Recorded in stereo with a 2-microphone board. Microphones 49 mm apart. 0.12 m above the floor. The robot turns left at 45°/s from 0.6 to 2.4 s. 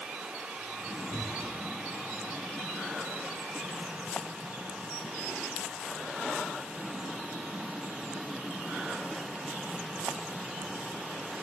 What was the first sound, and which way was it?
A cupboard door, 35° left (ahead or behind).